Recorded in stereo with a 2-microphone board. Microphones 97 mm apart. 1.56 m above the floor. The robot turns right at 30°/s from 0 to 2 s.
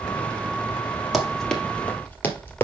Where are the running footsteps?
Centre (ahead or behind), 1.9 m; by 2.7 s 20° left (ahead or behind), 1.6 m.